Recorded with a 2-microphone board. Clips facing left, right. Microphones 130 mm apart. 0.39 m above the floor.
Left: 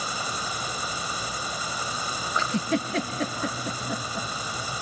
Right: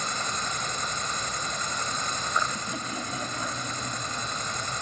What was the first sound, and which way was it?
An insect, 10° left (ahead or behind).